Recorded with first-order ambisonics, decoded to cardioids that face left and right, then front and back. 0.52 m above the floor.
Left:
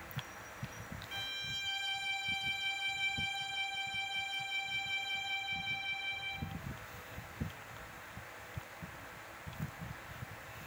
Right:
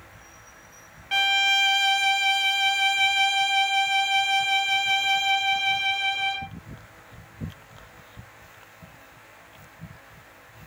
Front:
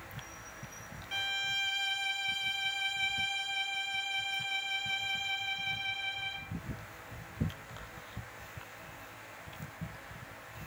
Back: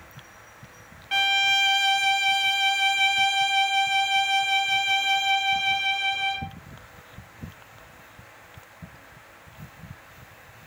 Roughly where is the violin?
Behind right.